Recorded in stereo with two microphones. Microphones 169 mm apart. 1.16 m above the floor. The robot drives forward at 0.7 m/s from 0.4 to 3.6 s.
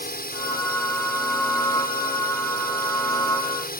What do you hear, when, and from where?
0.0 s a drone: 70° left (ahead or behind)